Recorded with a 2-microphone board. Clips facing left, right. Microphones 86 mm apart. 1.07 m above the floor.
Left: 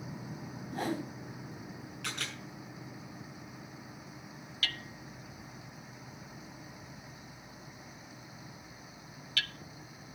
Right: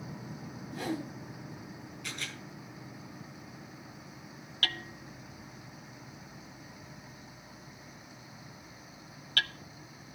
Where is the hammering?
45° right (ahead or behind), 0.6 m.